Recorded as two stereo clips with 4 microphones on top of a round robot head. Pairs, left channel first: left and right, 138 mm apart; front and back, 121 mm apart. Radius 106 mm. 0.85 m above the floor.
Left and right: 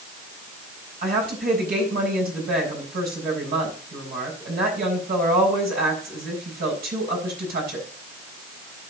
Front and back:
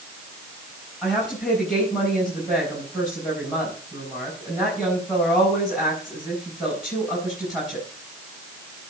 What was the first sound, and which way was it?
A woman speaking, 90° right.